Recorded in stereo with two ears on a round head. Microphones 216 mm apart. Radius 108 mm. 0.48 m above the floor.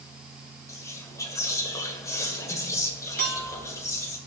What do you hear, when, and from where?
0.7 s whispering: 15° left (ahead or behind), 1.9 m
3.2 s a clink: 45° right (ahead or behind), 3.5 m